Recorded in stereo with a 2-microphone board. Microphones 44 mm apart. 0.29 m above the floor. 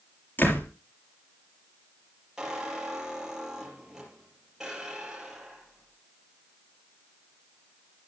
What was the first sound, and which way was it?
A door slam, 50° left (ahead or behind).